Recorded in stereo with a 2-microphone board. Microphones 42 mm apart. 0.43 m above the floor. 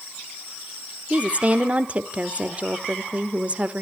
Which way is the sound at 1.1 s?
30° right (ahead or behind).